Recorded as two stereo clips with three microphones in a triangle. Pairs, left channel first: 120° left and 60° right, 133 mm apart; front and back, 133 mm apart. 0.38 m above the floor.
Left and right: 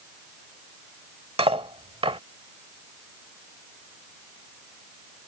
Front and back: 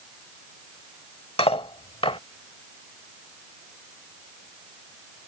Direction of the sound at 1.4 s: 30° right.